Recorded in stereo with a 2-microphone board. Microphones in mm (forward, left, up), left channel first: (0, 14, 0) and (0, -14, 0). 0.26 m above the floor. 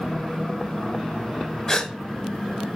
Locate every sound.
1.7 s a gasp: 15° left (ahead or behind), 1.2 m